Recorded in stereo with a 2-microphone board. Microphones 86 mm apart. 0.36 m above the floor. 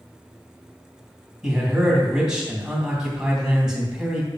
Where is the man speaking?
10° right (ahead or behind), 2.5 m.